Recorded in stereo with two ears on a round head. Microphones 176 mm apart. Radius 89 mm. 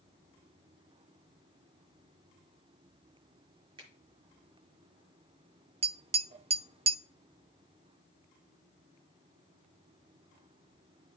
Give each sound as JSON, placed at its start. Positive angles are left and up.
{"t": 3.8, "sound": "a finger snap", "side_deg": -25, "distance_m": 5.5}
{"t": 5.8, "sound": "tapping", "side_deg": -30, "distance_m": 0.5}